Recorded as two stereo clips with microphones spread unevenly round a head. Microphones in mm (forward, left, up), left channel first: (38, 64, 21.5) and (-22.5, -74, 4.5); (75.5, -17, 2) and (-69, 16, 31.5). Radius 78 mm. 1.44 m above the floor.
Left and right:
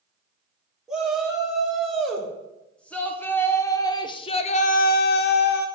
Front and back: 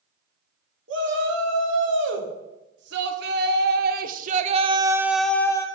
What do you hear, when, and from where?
0.9 s a shout: 160° left, 2 m; by 5.7 s 45° left, 0.6 m